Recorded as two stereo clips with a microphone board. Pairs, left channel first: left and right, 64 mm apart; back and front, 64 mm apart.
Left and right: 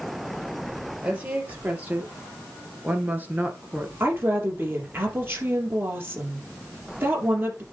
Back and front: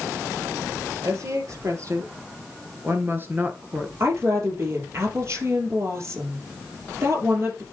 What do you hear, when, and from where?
1.0 s a woman speaking: 25° right, 3 m; by 3.9 s 50° right, 1.4 m
4.0 s a woman speaking: 40° right, 3.5 m